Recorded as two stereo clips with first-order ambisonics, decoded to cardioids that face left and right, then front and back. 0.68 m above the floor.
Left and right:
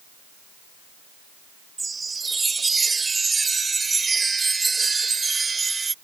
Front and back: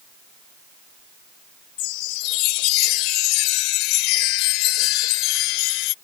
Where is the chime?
15° right.